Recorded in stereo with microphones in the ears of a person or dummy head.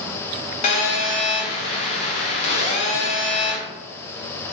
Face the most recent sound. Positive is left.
turn(degrees=40)  # may be behind; listen again after turning